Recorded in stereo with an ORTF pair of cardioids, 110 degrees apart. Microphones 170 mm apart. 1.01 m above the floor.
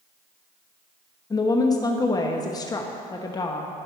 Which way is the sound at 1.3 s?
25° left.